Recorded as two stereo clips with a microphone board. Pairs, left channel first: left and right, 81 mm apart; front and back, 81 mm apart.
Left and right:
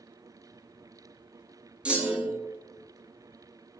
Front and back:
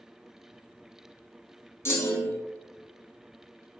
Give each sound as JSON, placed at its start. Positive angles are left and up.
{"t": 1.9, "sound": "a clunk", "azimuth_deg": -25, "distance_m": 0.8}